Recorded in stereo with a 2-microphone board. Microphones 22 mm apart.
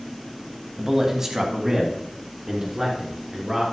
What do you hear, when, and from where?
0.8 s a man speaking: 20° right (ahead or behind), 1.3 m